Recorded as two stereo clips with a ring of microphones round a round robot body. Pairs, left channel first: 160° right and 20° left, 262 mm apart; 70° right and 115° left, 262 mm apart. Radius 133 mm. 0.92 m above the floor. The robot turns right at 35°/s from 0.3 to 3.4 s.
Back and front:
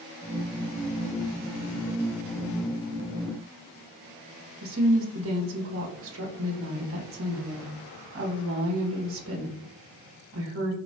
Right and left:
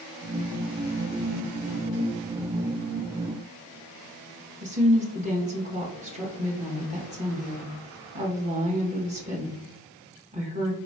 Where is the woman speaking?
50° left, 1.2 m.